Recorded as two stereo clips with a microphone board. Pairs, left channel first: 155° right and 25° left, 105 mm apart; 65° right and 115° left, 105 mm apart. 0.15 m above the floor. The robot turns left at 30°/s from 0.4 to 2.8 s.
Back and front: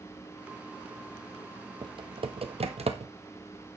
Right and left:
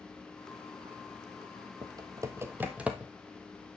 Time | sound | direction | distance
1.8 | typing on a keyboard | 65° left | 1.2 m